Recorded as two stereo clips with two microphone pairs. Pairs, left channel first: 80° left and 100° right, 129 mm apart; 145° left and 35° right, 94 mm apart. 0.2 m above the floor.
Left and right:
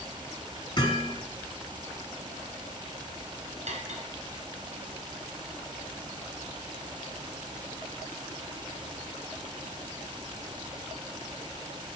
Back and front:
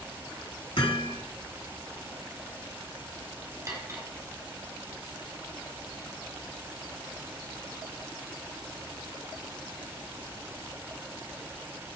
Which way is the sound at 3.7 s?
90° right.